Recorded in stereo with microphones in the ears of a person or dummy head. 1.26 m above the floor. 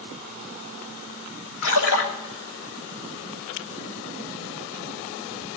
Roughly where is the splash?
Left.